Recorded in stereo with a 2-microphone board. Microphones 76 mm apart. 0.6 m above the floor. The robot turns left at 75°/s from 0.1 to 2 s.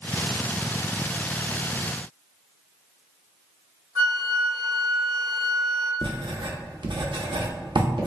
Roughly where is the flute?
Right.